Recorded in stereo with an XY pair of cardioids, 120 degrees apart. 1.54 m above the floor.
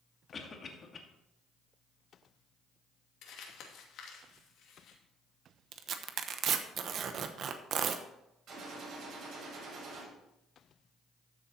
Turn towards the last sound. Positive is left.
turn(degrees=-55)